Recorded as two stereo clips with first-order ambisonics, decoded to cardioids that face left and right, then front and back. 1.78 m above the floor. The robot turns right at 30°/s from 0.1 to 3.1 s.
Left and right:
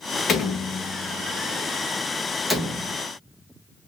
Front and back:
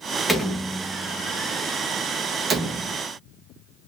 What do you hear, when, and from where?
0.3 s a door slam: 95° left, 1.1 m; by 3.0 s 175° left, 1.1 m